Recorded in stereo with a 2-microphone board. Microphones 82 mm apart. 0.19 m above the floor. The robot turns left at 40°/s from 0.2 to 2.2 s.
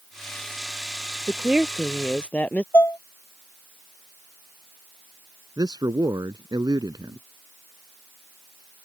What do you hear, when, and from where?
1.3 s a woman speaking: 160° right; by 2.6 s 165° left
2.7 s dishes clattering: 25° left (ahead or behind)
5.6 s a man speaking: 50° right (ahead or behind)